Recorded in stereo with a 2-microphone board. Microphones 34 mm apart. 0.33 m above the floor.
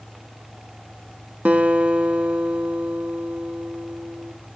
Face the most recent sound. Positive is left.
turn(degrees=-50)  # may be behind; listen again after turning